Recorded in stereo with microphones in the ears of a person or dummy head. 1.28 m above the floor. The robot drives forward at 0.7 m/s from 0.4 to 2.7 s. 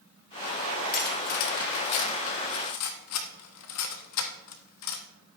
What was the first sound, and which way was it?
Cutlery clinking, 45° left (ahead or behind).